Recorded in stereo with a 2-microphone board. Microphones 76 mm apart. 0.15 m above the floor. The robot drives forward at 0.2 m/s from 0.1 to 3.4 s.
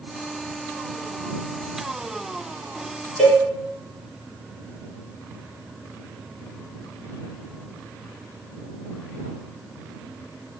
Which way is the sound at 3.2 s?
5° left (ahead or behind).